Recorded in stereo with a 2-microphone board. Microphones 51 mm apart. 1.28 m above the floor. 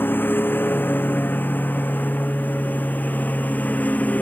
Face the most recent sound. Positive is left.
turn(degrees=30)  # may be behind; listen again after turning